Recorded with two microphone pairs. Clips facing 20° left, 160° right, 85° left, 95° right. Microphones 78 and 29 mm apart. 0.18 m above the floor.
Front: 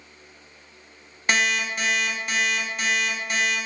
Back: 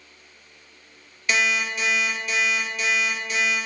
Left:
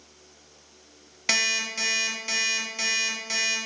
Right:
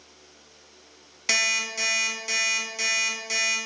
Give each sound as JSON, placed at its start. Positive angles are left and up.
{"t": 1.3, "sound": "an alarm clock", "azimuth_deg": 10, "distance_m": 0.5}